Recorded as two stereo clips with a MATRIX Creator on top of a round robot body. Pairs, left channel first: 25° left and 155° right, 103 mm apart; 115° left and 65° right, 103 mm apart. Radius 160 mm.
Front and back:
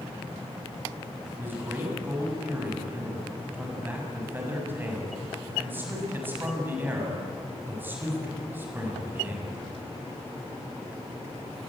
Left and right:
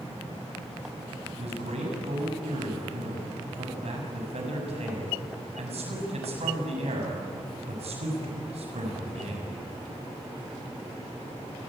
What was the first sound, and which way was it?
A man speaking, 85° right.